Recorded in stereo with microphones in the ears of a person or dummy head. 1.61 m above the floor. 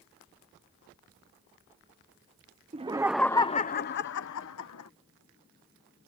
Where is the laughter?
25° right (ahead or behind); by 4.9 s 75° left (ahead or behind).